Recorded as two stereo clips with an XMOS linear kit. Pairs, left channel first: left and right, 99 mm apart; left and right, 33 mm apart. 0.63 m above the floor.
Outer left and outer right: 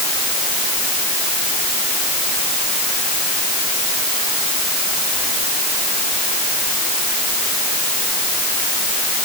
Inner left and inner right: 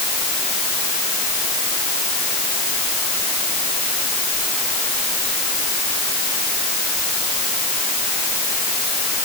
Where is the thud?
I don't hear a thud.